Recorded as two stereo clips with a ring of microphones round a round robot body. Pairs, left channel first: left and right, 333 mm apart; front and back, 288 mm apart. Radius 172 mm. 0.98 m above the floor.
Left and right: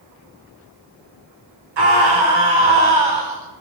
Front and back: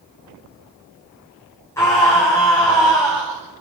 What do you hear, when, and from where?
1.8 s a scream: 80° right, 4.5 m